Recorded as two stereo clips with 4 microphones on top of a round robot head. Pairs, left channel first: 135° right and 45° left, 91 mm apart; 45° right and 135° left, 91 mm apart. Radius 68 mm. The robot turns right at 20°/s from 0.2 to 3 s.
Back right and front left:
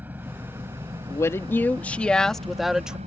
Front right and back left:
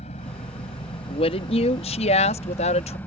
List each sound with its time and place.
0.0 s an engine running: 30° right; by 3.1 s 30° left
1.1 s a woman speaking: 75° right; by 3.0 s 40° right